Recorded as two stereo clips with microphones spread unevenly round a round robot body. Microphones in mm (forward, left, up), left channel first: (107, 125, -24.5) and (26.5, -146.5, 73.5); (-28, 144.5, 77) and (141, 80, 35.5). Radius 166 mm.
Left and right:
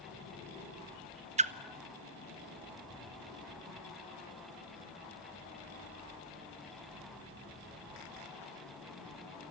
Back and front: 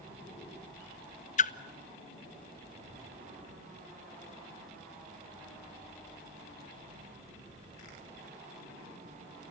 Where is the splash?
175° left, 0.8 m.